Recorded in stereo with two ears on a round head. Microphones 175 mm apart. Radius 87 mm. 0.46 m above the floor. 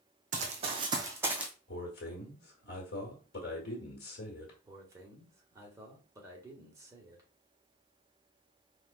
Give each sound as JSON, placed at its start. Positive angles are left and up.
{"t": 0.3, "sound": "running footsteps", "side_deg": -45, "distance_m": 1.0}
{"t": 1.7, "sound": "a man speaking", "side_deg": 60, "distance_m": 1.5}
{"t": 4.6, "sound": "a man speaking", "side_deg": -15, "distance_m": 1.4}